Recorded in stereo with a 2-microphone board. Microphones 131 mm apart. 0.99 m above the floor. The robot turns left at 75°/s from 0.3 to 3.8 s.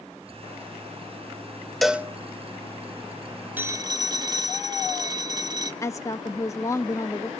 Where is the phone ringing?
15° right (ahead or behind), 1.1 m; by 5.7 s 30° right (ahead or behind), 1.1 m.